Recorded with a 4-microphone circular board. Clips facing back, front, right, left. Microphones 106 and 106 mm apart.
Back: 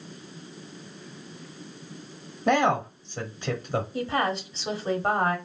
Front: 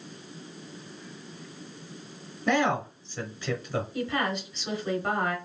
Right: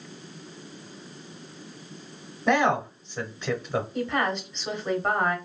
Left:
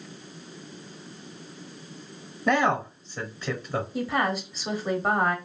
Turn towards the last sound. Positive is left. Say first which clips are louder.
# back 3 dB, left 2 dB
turn(degrees=170)